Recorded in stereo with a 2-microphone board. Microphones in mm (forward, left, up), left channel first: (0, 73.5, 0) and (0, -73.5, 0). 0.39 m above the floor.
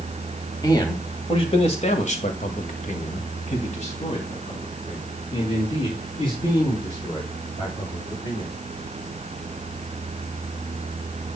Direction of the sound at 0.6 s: 25° left (ahead or behind).